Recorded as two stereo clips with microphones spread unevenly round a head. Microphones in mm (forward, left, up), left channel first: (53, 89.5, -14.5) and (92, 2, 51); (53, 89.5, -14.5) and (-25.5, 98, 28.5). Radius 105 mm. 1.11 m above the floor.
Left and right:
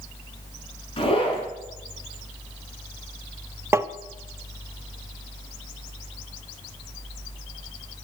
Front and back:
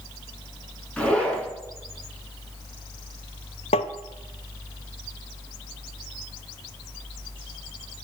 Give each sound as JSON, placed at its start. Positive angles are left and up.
{"t": 1.0, "sound": "a zipper", "azimuth_deg": 75, "distance_m": 5.0}
{"t": 3.7, "sound": "tapping", "azimuth_deg": -25, "distance_m": 0.5}